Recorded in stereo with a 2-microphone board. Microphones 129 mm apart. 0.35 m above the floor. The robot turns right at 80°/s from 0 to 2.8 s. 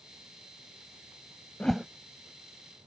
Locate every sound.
1.6 s a whoosh: 10° left (ahead or behind); by 1.9 s 15° right (ahead or behind)